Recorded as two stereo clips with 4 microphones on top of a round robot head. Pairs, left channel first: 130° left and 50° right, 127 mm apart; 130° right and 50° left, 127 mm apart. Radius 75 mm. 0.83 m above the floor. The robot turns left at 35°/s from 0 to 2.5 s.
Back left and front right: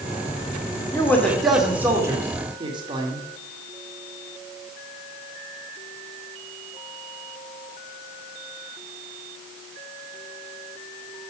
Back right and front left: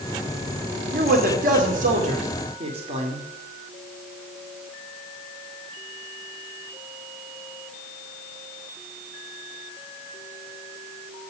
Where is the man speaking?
60° left, 2 m; by 3.2 s 5° left, 2 m.